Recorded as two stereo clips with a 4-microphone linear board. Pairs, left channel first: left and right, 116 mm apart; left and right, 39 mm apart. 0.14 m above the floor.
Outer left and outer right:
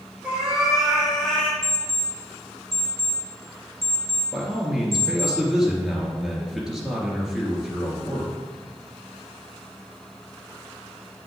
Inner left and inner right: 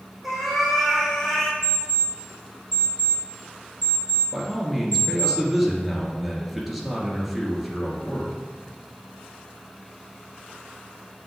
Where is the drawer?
No drawer in this recording.